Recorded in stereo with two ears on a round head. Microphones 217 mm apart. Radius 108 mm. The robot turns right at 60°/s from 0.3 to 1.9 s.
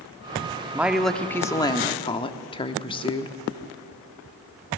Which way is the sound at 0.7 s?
5° right (ahead or behind).